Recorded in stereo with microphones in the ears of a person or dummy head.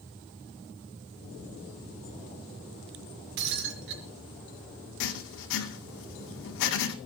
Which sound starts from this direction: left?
Writing, at 5.0 s.